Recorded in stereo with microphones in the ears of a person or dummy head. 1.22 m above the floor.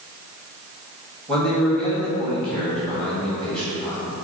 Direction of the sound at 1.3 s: 5° left (ahead or behind).